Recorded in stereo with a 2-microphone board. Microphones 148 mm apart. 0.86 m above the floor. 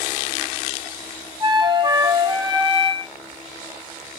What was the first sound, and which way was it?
A flute, 35° right (ahead or behind).